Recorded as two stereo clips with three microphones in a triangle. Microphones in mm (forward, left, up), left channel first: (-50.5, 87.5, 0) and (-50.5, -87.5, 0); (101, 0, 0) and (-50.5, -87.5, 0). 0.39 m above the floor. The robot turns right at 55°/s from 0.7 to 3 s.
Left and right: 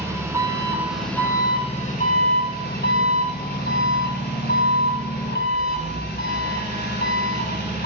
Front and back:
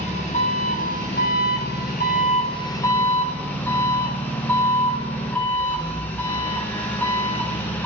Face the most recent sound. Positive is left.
turn(degrees=110)